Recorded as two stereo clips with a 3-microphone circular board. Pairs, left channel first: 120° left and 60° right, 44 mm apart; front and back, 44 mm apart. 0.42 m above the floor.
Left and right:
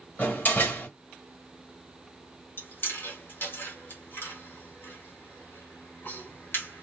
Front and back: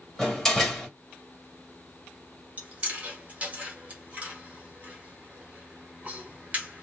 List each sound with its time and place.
0.2 s a door slam: 80° left, 1.5 m
2.6 s chewing: 130° left, 1.5 m